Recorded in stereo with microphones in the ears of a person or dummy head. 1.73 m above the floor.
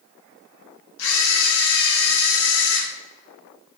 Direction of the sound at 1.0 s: 85° left.